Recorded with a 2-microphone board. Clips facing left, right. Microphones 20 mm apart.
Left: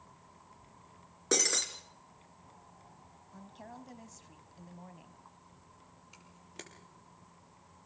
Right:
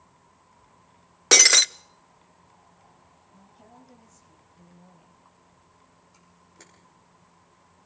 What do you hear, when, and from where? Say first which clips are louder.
1.3 s breaking glass: right 14 dB; 65° right (ahead or behind), 0.5 m
3.3 s a woman speaking: left 4 dB; 40° left (ahead or behind), 1.9 m
6.1 s a camera shutter: left 5 dB; 80° left, 5 m